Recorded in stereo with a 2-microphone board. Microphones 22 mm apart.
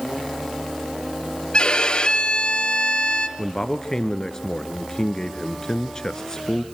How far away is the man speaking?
About 1.5 m.